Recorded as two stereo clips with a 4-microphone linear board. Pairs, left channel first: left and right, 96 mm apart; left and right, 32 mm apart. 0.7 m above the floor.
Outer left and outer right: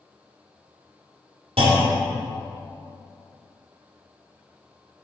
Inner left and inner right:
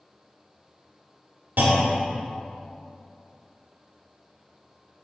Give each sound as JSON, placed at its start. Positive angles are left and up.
{"t": 1.6, "sound": "a clunk", "side_deg": -85, "distance_m": 1.6}